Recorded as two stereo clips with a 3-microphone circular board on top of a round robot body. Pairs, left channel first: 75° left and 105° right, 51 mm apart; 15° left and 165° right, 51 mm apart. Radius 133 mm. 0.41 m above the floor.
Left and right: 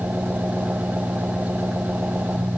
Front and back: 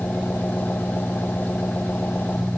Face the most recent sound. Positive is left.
turn(degrees=-40)